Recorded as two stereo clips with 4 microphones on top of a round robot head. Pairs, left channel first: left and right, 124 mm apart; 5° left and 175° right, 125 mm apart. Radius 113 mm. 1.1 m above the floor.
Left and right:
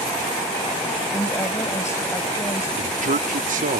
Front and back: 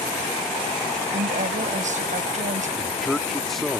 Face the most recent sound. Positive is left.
turn(degrees=-85)